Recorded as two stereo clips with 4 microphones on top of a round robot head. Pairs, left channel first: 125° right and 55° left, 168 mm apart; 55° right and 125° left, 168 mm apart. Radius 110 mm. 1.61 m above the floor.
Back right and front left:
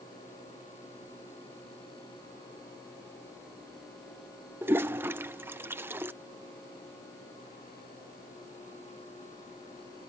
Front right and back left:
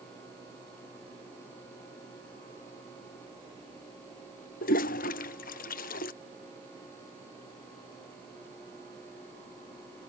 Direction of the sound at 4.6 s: 20° right.